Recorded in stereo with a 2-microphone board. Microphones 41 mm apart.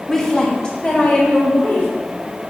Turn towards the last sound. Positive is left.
turn(degrees=35)  # may be behind; listen again after turning